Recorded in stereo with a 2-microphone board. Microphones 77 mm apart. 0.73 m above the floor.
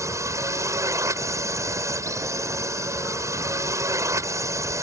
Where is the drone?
40° right (ahead or behind).